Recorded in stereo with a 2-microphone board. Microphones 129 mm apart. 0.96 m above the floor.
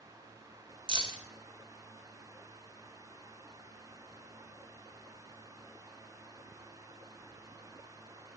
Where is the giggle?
No giggle in this recording.